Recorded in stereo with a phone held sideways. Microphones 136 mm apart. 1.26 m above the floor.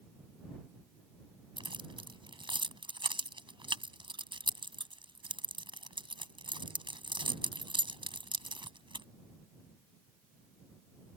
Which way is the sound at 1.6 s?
35° right (ahead or behind).